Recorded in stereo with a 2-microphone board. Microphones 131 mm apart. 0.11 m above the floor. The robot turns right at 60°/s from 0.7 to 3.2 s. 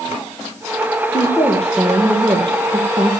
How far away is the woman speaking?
About 3 m.